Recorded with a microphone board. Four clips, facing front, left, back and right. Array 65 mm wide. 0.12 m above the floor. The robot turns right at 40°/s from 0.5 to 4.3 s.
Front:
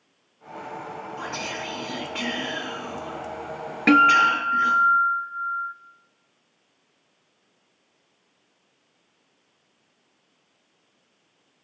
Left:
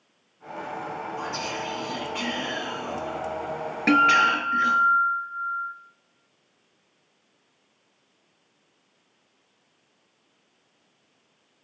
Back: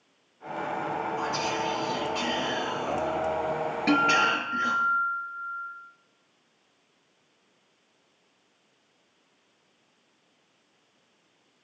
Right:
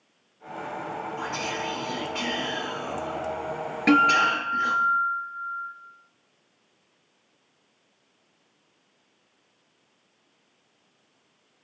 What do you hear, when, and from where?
1.2 s whispering: 45° right, 2 m; by 4.8 s 80° left, 2 m
3.9 s a guitar: straight ahead, 0.5 m; by 5.8 s 20° left, 0.5 m